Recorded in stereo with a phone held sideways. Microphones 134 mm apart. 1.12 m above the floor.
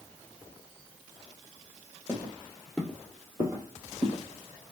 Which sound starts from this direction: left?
Footsteps, at 2.1 s.